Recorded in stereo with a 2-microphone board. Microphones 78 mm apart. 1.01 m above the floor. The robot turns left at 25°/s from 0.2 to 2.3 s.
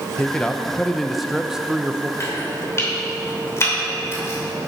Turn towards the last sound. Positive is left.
turn(degrees=35)  # may be behind; listen again after turning